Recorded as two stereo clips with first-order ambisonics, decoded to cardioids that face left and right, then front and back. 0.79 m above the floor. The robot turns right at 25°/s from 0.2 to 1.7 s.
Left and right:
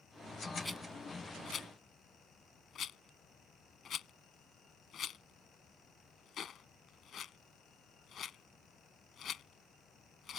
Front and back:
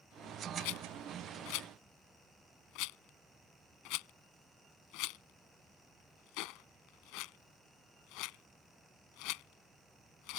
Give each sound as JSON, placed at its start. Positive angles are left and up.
{"t": 0.6, "sound": "a rattle", "azimuth_deg": 0}